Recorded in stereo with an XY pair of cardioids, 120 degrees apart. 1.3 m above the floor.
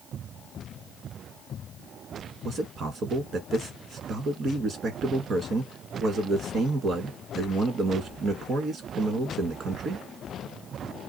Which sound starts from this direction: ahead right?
A man speaking, at 2.5 s.